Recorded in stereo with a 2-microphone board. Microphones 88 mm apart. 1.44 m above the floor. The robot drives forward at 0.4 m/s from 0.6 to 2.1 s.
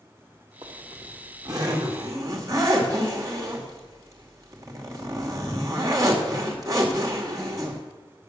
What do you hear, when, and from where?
0.6 s a zipper: 50° right (ahead or behind), 2.0 m; by 7.8 s 40° right (ahead or behind), 2.5 m